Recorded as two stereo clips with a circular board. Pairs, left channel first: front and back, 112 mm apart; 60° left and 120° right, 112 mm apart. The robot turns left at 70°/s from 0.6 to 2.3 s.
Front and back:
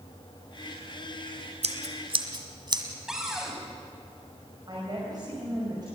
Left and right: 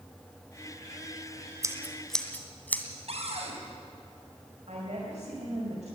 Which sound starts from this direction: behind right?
A woman speaking, at 4.7 s.